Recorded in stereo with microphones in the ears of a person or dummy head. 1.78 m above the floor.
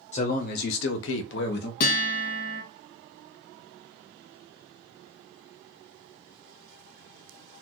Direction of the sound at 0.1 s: 40° left (ahead or behind).